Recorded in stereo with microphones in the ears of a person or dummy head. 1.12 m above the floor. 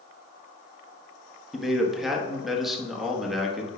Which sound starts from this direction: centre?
A man speaking, at 1.5 s.